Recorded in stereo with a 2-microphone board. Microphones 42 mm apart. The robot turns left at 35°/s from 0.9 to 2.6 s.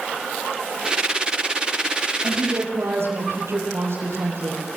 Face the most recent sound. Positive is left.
turn(degrees=-85)